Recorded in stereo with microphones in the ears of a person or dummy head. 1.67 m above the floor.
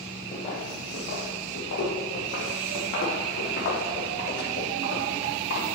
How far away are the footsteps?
About 2 m.